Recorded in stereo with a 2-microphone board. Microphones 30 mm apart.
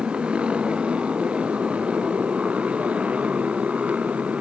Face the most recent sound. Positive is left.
turn(degrees=-50)  # may be behind; listen again after turning